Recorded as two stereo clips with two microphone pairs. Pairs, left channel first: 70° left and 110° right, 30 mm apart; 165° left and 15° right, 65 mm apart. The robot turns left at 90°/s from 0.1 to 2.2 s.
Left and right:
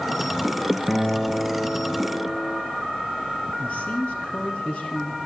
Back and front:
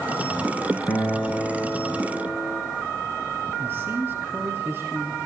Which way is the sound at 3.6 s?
35° left.